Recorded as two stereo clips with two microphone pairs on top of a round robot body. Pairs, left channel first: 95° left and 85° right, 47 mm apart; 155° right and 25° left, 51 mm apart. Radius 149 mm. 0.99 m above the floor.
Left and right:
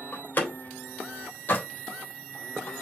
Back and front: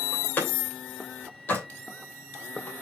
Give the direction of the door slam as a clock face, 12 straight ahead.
7 o'clock.